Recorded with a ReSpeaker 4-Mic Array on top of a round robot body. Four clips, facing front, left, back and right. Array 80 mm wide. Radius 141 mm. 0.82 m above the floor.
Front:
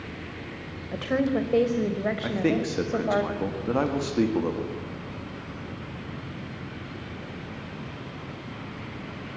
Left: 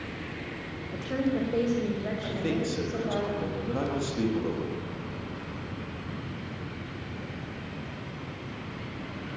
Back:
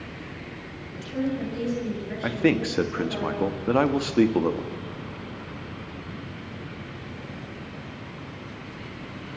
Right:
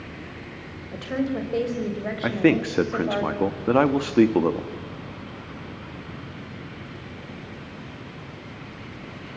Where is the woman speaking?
10° right, 4 m; by 3.2 s 25° right, 5 m.